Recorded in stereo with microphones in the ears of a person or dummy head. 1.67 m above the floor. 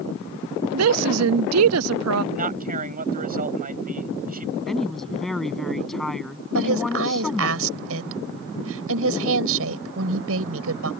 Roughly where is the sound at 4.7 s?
Centre.